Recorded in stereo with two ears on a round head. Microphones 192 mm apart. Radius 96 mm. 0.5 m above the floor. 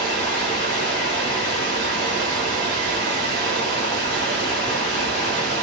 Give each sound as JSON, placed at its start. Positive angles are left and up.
{"t": 0.0, "sound": "running water", "side_deg": -55, "distance_m": 1.5}